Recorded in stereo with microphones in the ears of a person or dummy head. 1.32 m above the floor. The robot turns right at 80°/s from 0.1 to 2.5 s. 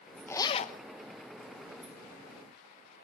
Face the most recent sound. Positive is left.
turn(degrees=-175)